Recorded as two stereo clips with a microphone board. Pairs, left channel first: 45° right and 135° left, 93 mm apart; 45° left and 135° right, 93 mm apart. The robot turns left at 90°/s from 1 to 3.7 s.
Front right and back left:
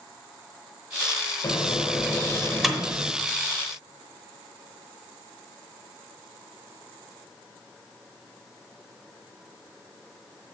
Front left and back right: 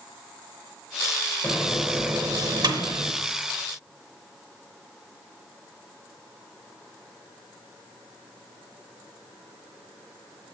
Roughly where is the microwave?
Ahead right.